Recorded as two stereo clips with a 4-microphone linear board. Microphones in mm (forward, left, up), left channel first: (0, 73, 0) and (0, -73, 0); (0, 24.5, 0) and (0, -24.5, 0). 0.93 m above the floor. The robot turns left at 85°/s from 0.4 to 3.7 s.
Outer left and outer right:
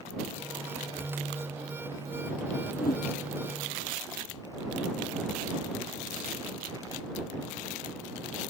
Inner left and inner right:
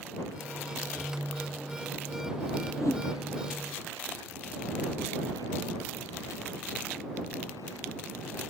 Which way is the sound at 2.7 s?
90° left.